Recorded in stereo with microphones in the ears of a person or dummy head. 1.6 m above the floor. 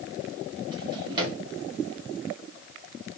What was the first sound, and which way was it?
A drawer, 25° right (ahead or behind).